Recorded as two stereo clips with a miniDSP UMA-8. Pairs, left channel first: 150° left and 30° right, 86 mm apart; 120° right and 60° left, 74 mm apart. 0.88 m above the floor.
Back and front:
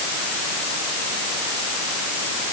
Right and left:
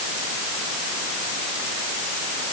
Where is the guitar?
No guitar in this recording.